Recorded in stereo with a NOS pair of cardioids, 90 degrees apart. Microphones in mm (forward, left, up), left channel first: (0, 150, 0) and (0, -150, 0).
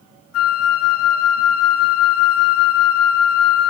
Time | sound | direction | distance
0.3 | a flute | 65° left | 0.9 m